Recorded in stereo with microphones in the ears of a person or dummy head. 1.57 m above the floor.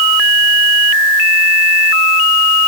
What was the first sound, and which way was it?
Only background noise.